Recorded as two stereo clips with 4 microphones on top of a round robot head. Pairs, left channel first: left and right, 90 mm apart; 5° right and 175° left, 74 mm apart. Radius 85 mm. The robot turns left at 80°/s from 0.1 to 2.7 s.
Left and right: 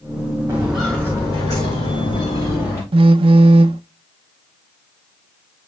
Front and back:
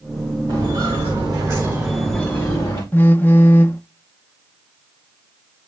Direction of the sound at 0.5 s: 150° right.